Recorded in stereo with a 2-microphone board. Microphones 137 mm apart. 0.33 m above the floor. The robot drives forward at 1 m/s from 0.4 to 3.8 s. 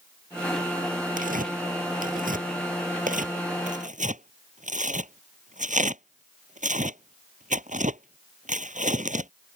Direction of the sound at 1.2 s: 80° right.